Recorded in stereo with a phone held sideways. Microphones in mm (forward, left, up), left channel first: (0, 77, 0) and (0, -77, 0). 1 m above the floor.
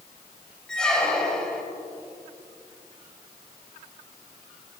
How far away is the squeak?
About 1.8 m.